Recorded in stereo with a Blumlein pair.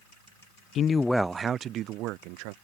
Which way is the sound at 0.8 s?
30° left.